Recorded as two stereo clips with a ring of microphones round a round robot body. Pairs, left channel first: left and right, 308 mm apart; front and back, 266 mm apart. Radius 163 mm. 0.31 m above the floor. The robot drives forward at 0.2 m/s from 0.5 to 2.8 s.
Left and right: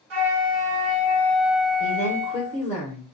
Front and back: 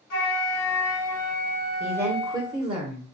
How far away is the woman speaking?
About 0.9 m.